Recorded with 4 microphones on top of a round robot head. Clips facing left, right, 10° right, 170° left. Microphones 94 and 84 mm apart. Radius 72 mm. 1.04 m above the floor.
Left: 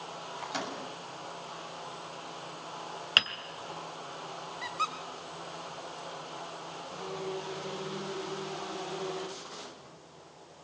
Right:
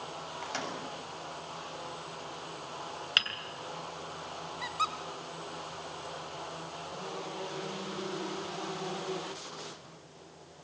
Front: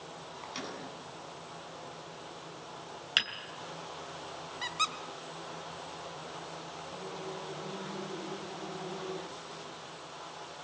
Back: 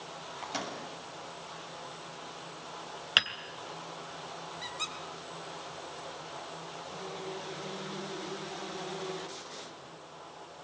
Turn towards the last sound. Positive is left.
turn(degrees=-5)